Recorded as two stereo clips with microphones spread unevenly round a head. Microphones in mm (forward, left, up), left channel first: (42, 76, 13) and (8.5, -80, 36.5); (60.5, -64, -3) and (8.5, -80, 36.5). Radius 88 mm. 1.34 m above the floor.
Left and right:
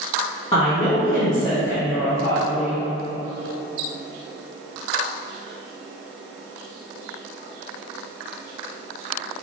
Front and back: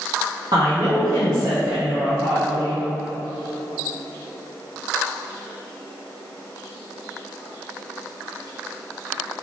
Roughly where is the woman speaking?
Behind left.